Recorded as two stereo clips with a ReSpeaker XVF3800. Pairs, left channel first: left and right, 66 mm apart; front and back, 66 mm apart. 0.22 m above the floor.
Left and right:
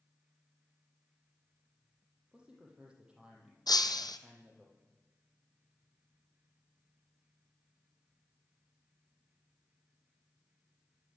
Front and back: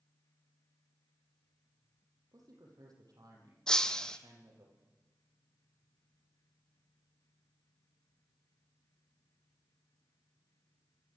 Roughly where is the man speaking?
Behind.